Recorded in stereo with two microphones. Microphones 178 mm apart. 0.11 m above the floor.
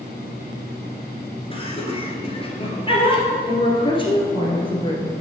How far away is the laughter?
About 1.6 m.